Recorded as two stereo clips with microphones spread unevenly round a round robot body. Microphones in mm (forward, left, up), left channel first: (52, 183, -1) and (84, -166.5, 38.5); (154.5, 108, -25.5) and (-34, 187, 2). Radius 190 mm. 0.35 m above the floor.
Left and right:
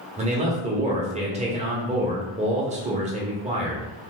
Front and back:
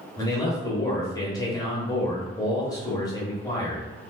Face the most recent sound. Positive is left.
turn(degrees=-25)